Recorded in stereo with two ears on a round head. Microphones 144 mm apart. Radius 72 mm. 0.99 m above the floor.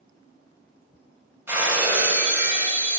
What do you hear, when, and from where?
1.5 s breaking glass: 15° right (ahead or behind), 1.3 m